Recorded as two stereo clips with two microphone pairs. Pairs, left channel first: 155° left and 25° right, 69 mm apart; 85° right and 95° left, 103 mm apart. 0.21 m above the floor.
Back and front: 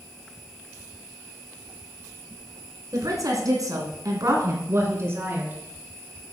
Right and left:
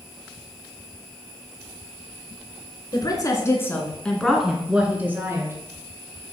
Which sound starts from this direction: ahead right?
A woman speaking, at 2.9 s.